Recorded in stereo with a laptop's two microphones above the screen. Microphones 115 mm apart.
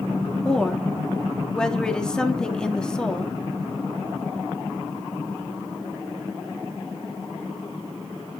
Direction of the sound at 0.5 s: 5° left (ahead or behind).